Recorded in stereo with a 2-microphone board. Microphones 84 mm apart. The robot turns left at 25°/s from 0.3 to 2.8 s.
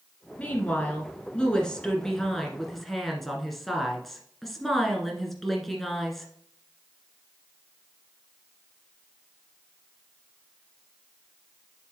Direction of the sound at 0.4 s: 20° left (ahead or behind).